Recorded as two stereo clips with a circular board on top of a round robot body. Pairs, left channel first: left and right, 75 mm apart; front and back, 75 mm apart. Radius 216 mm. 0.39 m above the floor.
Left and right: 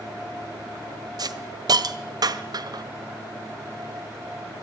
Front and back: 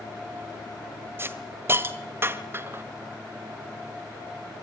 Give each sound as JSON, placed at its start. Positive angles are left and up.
{"t": 1.2, "sound": "a hiss", "azimuth_deg": -120, "distance_m": 1.4}